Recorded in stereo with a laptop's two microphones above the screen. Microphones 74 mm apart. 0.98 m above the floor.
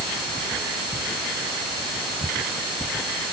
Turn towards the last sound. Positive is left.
No sound to turn to.